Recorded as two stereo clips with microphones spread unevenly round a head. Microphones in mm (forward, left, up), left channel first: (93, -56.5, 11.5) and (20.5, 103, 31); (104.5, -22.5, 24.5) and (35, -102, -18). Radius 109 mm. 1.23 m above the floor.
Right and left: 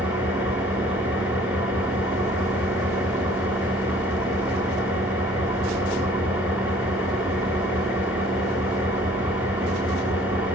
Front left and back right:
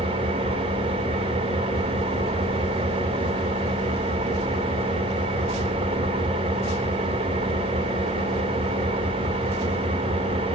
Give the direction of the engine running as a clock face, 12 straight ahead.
5 o'clock.